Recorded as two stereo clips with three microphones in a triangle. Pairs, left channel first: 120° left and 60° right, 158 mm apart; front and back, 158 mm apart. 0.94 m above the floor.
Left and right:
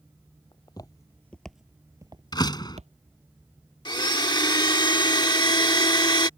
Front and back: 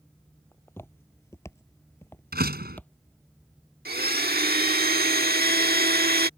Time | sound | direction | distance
0.5 | footsteps | 70° left | ?
2.3 | a door slam | 175° right | ?
3.9 | a blender | straight behind | ?